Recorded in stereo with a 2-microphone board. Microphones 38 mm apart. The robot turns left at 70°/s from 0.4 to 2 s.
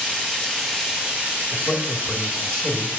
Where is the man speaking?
15° left (ahead or behind), 1.0 m; by 2.9 s 5° left (ahead or behind), 1.0 m.